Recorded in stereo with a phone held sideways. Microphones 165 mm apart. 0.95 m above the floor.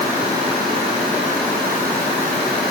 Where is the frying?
No frying in this recording.